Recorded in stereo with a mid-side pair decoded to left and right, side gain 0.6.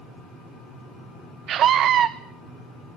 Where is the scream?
55° right, 0.8 m.